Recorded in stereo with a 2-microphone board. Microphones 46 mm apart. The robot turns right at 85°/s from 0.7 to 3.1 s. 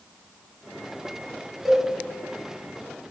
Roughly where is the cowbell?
Centre.